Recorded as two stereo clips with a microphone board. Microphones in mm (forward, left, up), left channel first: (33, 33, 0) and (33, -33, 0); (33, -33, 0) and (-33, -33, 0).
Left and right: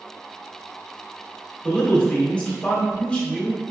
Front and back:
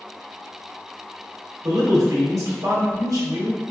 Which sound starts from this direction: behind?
A man speaking, at 1.6 s.